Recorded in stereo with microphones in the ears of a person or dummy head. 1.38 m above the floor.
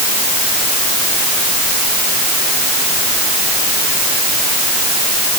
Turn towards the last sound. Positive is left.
No sound to turn to.